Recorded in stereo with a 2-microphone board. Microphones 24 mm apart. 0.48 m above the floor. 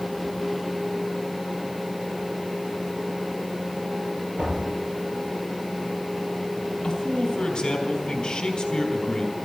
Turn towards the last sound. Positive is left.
turn(degrees=25)  # may be behind; listen again after turning